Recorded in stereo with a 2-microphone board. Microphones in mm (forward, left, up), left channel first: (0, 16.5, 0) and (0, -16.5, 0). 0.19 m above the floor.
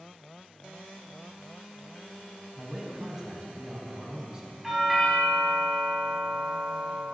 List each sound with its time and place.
2.6 s a man speaking: 20° right (ahead or behind), 1.1 m
4.6 s a doorbell: 10° right (ahead or behind), 1.8 m